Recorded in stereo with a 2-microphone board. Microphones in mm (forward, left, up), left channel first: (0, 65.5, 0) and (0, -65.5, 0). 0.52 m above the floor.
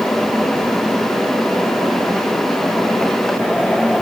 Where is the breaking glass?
No breaking glass in this recording.